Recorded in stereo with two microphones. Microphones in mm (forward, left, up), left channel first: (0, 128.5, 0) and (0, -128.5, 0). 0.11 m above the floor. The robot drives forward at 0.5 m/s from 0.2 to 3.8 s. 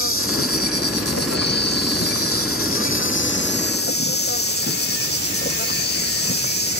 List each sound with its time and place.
0.0 s an insect: 55° left (ahead or behind); by 6.8 s 40° left (ahead or behind)